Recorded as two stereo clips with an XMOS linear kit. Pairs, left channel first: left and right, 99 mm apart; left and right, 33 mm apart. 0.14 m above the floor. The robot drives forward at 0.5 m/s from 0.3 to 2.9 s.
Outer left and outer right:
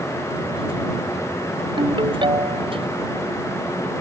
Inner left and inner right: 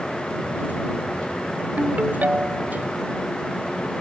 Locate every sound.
1.8 s a ringtone: 50° right (ahead or behind)